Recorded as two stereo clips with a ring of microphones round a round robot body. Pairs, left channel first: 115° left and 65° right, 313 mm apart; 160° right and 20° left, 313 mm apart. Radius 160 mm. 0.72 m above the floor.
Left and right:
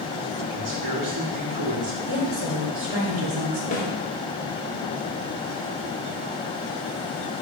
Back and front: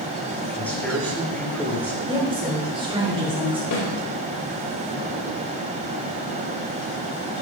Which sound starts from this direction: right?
A man speaking, at 0.5 s.